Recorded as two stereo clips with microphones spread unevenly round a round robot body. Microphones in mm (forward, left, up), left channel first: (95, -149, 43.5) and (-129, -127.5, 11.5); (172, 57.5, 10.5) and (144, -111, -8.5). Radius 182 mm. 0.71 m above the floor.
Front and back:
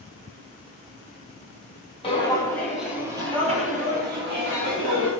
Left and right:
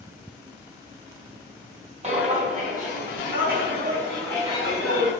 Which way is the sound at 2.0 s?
55° right.